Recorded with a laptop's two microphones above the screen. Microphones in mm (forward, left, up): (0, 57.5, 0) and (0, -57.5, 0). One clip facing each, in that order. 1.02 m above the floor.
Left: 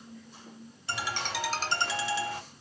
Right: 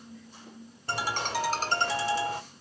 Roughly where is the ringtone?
Right.